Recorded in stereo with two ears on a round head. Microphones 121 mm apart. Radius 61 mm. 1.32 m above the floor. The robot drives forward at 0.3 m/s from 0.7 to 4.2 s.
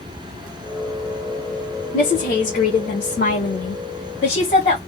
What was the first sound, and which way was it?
A woman speaking, 65° left (ahead or behind).